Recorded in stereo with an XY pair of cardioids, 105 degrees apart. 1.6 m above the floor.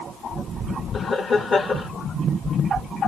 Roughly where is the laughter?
Ahead left.